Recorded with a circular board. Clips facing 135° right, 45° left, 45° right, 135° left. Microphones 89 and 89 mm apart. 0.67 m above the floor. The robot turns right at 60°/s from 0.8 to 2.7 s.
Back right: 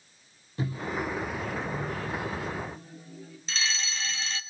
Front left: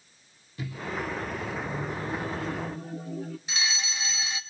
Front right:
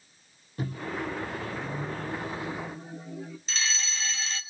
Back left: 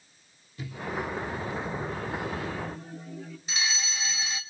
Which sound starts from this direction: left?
A fire alarm, at 3.5 s.